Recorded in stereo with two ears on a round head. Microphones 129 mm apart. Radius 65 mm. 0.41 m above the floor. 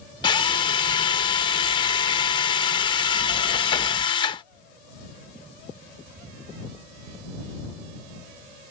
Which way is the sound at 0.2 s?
30° left (ahead or behind).